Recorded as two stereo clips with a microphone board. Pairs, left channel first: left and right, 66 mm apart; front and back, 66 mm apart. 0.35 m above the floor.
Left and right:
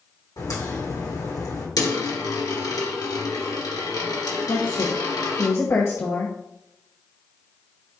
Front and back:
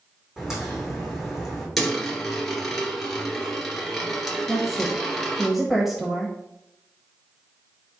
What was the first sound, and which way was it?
A crack, 100° left.